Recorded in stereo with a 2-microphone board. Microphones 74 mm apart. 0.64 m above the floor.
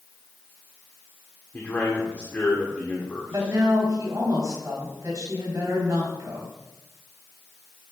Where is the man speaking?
25° left (ahead or behind), 1.6 m.